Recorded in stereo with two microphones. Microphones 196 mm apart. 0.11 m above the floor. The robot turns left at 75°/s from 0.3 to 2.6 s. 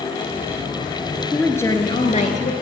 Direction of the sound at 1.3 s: Straight behind.